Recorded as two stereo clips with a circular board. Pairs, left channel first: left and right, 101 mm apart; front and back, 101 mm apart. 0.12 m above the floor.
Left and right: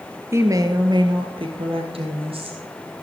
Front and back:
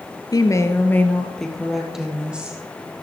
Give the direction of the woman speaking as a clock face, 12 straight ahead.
1 o'clock.